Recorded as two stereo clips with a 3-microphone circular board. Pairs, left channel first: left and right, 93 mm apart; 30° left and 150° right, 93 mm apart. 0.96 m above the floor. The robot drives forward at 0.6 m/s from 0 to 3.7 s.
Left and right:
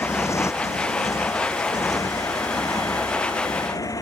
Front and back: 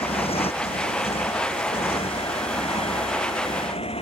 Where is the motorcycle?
30° left; by 4.0 s 35° left.